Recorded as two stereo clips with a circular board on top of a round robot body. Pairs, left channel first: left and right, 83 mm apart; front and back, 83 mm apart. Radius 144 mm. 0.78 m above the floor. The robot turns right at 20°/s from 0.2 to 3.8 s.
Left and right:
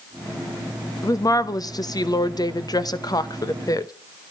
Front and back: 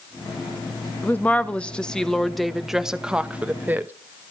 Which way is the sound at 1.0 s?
60° left.